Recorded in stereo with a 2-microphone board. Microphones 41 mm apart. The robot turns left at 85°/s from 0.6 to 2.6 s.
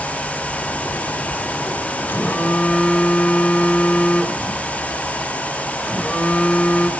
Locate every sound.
2.1 s a phone buzzing: 75° left, 1.9 m; by 6.9 s 30° left, 1.9 m